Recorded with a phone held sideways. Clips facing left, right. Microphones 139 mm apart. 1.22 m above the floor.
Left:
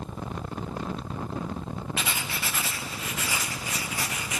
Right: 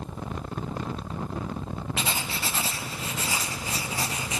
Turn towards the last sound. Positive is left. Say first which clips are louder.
# right 2 dB
turn(degrees=-30)  # may be behind; listen again after turning